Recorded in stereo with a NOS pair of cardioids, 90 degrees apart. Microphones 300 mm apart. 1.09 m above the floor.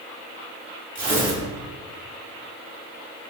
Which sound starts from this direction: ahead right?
Tearing paper, at 0.9 s.